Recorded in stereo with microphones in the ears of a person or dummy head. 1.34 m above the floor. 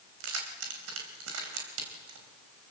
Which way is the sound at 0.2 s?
85° right.